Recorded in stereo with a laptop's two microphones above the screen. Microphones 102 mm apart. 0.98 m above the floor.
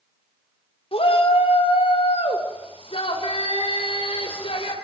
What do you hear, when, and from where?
0.9 s a shout: 75° left (ahead or behind), 3.5 m